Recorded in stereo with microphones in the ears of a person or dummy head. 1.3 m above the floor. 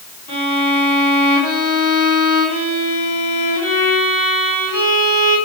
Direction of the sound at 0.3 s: 40° left (ahead or behind).